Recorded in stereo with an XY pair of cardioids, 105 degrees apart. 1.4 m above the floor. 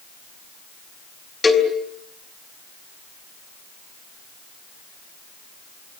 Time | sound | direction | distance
1.4 | a cowbell | 25° left | 4.5 m